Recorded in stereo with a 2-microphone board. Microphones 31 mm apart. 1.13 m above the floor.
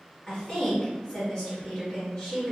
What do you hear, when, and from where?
0.3 s a woman speaking: 30° left (ahead or behind), 1.5 m